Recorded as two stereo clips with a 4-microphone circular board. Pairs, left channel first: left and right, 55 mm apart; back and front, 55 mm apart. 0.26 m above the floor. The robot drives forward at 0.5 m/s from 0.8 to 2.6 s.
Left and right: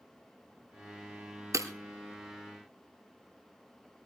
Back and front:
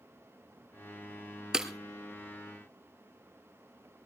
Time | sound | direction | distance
1.5 | breaking glass | 75° right | 1.9 m